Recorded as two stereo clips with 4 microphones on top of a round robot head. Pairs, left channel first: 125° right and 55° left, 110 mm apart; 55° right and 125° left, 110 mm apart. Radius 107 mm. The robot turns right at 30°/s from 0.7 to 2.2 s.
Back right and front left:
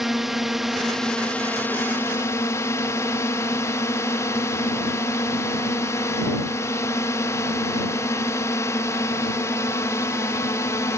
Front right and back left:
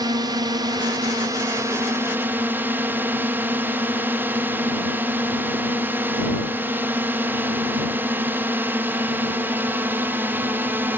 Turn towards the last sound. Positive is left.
turn(degrees=-170)